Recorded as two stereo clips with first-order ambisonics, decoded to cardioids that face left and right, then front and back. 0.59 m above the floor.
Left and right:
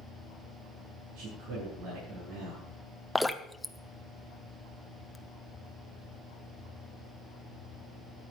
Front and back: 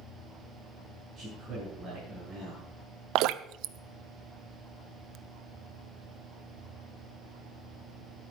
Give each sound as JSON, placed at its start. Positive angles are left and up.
{"t": 1.1, "sound": "a man speaking", "azimuth_deg": -95, "distance_m": 6.0}
{"t": 3.1, "sound": "dripping", "azimuth_deg": 180, "distance_m": 0.6}